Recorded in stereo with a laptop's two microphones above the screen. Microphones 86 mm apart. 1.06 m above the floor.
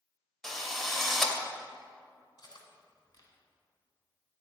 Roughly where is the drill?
Centre.